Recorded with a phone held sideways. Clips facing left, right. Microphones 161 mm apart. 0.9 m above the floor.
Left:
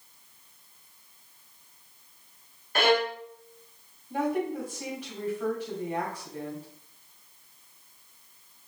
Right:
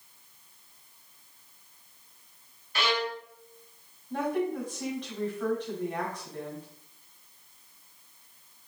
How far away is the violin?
About 0.5 m.